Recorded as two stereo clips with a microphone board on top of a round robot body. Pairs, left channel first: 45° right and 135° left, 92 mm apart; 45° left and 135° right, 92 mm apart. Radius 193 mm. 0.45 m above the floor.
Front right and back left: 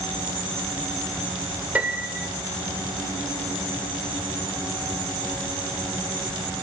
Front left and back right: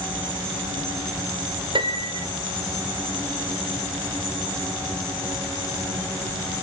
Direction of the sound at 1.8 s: 150° right.